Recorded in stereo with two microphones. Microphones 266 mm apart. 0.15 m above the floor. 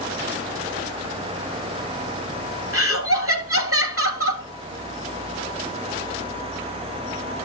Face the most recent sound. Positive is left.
turn(degrees=-55)  # may be behind; listen again after turning